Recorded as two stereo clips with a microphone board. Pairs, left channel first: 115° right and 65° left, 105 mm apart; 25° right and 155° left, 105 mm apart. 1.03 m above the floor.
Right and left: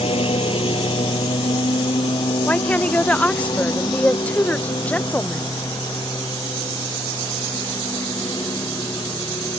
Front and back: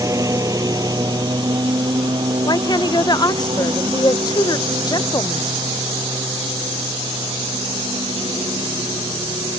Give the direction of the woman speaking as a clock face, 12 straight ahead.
1 o'clock.